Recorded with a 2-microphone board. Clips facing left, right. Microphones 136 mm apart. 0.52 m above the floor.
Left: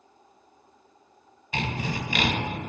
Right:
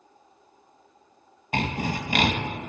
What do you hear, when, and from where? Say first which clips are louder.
1.5 s sawing: right 3 dB; 50° right (ahead or behind), 0.8 m